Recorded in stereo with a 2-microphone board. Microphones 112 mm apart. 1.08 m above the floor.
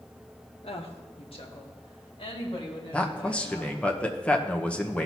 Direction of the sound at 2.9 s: 10° left (ahead or behind).